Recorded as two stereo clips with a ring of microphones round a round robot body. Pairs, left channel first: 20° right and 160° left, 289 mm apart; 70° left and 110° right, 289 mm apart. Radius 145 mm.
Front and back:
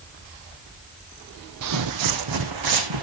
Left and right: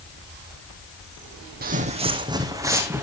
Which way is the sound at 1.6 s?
170° right.